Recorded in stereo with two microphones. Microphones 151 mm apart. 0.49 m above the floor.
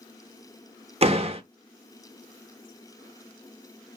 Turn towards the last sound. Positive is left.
turn(degrees=-45)  # may be behind; listen again after turning